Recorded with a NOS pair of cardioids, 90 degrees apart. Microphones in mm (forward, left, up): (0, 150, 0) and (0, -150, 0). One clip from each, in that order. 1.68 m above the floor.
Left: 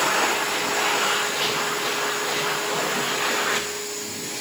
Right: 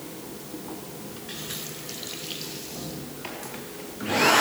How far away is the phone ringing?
I don't hear a phone ringing.